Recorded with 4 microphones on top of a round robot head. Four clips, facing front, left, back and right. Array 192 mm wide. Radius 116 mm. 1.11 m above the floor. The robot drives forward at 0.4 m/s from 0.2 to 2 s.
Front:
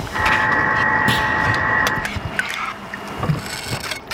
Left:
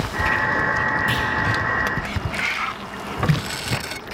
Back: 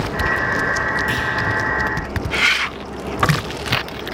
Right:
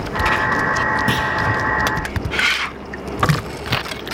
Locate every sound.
1.1 s a clunk: 50° right, 0.7 m; by 1.3 s 55° right, 0.6 m